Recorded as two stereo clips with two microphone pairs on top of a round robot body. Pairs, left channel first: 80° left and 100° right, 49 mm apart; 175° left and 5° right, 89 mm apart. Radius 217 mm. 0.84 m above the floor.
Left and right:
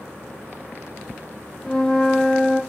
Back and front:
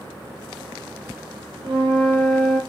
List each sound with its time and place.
1.6 s a flute: 10° left, 1.8 m